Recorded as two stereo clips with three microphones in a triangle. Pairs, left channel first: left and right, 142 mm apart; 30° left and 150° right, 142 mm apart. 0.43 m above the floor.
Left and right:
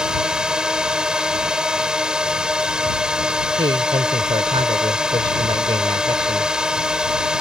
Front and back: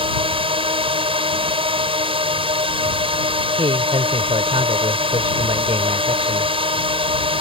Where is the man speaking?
125° right.